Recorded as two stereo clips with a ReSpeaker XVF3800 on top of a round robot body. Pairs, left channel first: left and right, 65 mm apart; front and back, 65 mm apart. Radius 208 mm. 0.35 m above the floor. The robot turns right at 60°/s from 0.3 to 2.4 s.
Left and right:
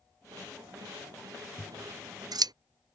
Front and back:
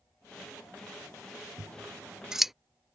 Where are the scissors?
145° right; by 2.5 s 95° right.